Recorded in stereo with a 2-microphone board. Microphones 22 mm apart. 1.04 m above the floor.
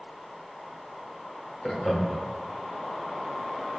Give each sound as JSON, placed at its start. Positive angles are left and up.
{"t": 1.6, "sound": "laughter", "side_deg": 15, "distance_m": 1.5}